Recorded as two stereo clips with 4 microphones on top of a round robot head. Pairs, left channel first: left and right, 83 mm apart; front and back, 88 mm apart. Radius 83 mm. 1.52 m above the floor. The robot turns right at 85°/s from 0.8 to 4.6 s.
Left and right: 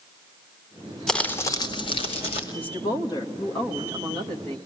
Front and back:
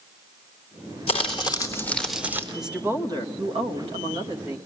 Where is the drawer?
No drawer in this recording.